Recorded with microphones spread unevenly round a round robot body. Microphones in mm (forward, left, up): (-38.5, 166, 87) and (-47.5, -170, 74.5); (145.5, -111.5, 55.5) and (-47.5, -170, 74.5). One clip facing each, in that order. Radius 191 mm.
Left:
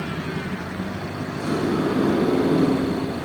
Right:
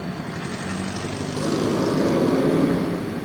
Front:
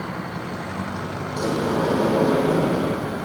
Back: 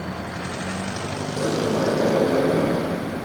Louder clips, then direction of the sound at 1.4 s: Right 1 dB, even; 80° right.